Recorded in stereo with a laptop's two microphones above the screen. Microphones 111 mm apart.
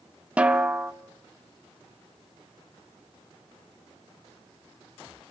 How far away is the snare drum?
About 0.8 m.